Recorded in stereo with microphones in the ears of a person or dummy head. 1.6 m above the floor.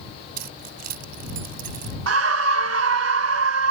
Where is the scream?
85° right.